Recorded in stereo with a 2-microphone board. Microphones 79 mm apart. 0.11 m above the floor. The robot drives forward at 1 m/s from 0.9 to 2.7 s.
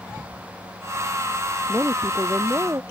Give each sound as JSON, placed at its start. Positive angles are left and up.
{"t": 1.7, "sound": "a woman speaking", "side_deg": -25}